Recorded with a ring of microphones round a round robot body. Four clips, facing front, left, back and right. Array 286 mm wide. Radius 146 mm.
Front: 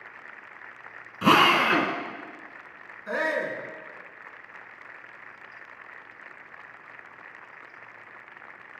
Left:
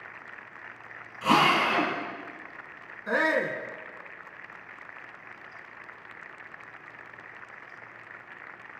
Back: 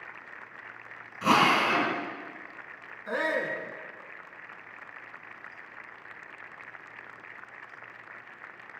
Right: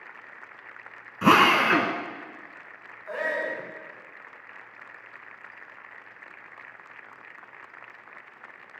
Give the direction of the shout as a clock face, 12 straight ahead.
9 o'clock.